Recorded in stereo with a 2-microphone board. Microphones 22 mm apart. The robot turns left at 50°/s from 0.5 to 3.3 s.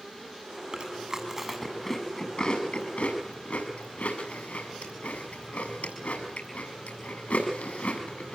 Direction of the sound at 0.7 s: 45° right (ahead or behind).